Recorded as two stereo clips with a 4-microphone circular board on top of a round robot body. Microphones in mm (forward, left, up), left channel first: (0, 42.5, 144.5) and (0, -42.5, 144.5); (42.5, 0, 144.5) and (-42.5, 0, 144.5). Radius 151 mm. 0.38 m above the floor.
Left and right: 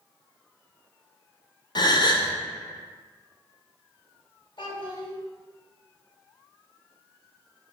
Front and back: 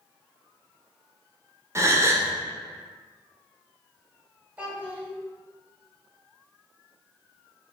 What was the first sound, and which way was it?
A gasp, 120° left.